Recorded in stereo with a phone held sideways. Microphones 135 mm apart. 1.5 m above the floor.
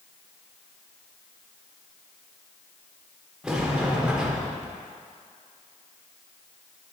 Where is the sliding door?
5° right (ahead or behind), 0.9 m.